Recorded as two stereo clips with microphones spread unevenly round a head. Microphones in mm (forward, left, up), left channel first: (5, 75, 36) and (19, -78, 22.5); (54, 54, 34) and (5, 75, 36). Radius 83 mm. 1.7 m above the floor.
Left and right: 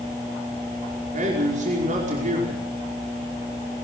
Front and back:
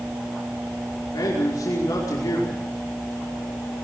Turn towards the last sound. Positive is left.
turn(degrees=-45)